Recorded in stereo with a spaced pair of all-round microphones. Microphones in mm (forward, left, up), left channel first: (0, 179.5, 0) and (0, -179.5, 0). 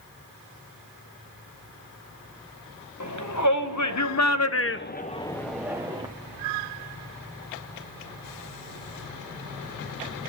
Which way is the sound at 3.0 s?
50° left (ahead or behind).